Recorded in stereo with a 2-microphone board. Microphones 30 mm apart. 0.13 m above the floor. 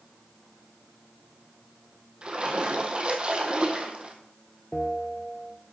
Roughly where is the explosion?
No explosion in this recording.